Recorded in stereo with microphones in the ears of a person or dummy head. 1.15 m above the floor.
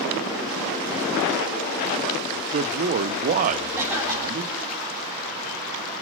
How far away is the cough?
About 9 m.